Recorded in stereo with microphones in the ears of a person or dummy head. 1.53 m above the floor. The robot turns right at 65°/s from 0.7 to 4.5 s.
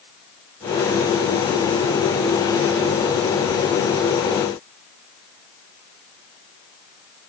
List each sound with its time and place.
Only background noise.